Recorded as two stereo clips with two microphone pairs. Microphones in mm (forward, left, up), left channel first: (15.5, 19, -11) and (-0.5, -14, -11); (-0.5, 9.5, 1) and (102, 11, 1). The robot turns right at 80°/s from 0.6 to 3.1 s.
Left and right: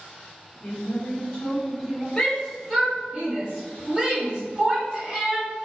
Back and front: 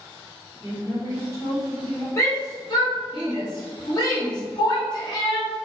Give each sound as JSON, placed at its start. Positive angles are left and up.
{"t": 0.6, "sound": "a woman speaking", "azimuth_deg": 65, "distance_m": 1.1}
{"t": 2.2, "sound": "a shout", "azimuth_deg": 125, "distance_m": 0.9}